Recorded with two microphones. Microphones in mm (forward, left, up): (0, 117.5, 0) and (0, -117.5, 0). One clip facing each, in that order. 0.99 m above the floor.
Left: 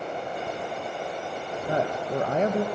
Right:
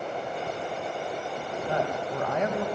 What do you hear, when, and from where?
1.7 s a woman speaking: 35° left (ahead or behind), 0.5 m